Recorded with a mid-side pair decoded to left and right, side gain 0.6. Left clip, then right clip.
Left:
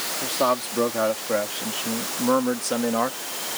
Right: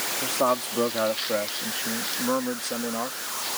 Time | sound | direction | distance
0.2 | a man speaking | 5° left | ?